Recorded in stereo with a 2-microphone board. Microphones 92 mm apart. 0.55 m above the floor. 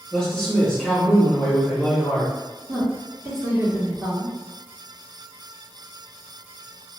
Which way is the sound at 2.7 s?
25° right (ahead or behind).